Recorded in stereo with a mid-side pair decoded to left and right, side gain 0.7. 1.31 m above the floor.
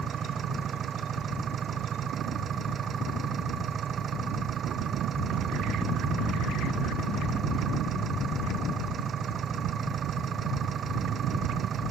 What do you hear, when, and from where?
0.0 s an engine running: 35° right